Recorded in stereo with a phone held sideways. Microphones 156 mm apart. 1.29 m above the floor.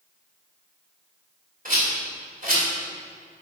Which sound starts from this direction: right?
A rattle, at 1.6 s.